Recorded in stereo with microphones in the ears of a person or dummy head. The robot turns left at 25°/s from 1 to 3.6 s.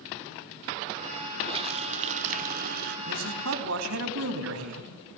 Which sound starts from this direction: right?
A man speaking, at 3.1 s.